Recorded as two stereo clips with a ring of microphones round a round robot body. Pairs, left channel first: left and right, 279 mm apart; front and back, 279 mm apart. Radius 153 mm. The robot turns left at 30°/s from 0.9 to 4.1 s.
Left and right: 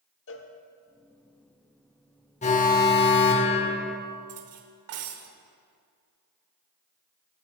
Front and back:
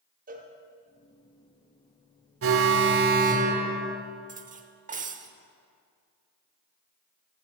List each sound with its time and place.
0.3 s a cowbell: 125° left, 0.9 m
2.4 s an alarm: 150° left, 0.8 m; by 4.0 s 105° left, 0.8 m
4.3 s cutlery clinking: 120° right, 0.9 m